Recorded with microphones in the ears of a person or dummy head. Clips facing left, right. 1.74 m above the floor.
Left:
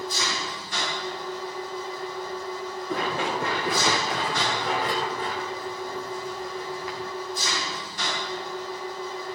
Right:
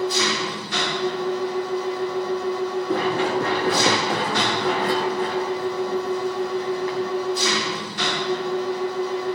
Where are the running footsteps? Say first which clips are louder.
Right 4 dB; 55° right (ahead or behind), 6 m; by 7.1 s 45° right (ahead or behind), 4 m.